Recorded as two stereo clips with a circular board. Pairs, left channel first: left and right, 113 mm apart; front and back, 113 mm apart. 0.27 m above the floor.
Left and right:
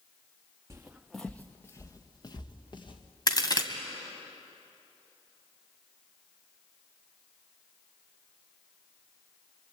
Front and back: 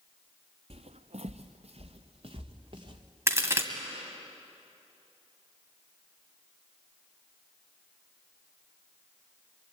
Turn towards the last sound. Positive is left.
turn(degrees=125)